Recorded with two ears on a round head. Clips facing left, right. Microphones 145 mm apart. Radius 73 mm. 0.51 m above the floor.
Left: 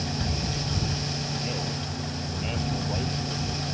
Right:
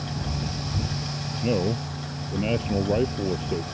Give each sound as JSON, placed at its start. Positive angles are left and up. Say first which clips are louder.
{"t": 1.4, "sound": "a man speaking", "louder": "right 8 dB", "side_deg": -60}